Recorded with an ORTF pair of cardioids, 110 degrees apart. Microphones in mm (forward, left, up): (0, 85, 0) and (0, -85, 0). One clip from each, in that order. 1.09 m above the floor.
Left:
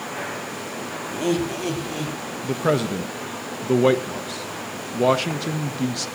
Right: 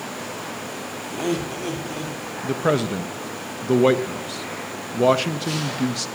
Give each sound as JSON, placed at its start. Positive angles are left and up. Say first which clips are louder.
{"t": 1.1, "sound": "laughter", "louder": "left 2 dB", "azimuth_deg": 5, "distance_m": 2.5}
{"t": 2.4, "sound": "a man speaking", "louder": "right 1 dB", "azimuth_deg": -5, "distance_m": 1.0}